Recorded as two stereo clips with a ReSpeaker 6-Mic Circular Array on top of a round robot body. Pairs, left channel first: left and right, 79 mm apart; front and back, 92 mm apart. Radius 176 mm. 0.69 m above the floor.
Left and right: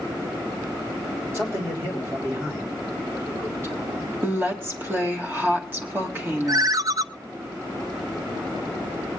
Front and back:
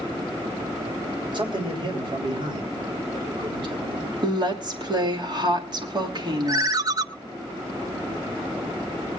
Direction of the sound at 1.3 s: 150° right.